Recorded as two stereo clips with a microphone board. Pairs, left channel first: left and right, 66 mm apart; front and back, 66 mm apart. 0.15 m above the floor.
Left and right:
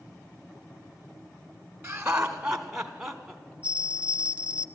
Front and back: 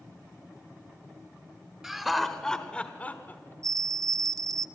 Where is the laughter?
120° right, 1.2 m; by 3.5 s 5° left, 1.3 m.